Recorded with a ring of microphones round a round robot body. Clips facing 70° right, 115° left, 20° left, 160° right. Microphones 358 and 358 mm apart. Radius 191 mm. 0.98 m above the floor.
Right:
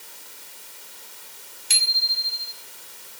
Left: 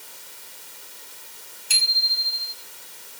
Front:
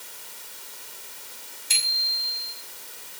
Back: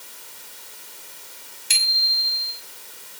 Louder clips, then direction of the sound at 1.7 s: Even, back 4 dB; 130° right.